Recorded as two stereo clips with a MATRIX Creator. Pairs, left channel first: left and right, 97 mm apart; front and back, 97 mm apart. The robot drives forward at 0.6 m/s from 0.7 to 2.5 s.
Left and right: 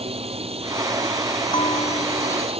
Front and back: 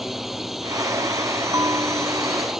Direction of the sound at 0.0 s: 90° right.